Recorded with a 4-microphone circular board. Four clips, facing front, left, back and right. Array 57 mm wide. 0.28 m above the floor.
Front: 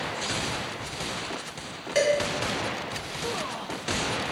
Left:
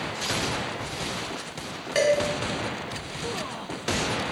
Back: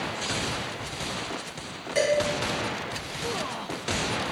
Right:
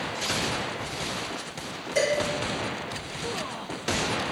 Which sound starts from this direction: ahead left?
Dishes clattering, at 1.9 s.